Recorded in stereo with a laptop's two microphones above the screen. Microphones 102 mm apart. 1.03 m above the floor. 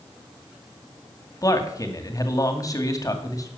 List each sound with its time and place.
1.4 s a man speaking: 35° left (ahead or behind), 2.5 m